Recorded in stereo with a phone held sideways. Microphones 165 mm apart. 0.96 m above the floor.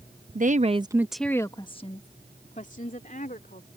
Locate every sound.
0.3 s a woman speaking: 55° right (ahead or behind); by 3.7 s 55° left (ahead or behind)